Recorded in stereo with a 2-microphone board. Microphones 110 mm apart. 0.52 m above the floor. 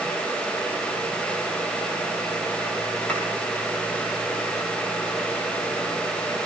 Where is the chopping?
10° left (ahead or behind), 8.5 m.